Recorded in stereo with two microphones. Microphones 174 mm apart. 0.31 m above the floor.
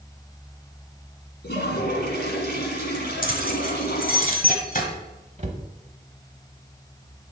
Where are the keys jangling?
55° left (ahead or behind), 1.3 m.